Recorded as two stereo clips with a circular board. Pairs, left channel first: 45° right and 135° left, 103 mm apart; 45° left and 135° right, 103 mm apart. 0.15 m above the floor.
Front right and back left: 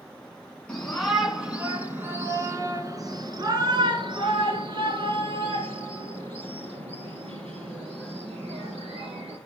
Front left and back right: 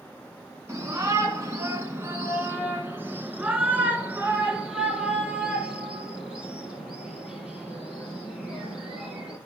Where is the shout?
115° right, 1.5 m; by 9.4 s 145° left, 5 m.